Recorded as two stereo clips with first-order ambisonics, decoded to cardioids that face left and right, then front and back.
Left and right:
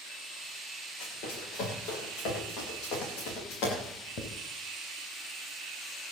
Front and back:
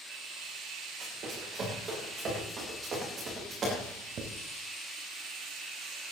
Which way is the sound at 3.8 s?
130° left.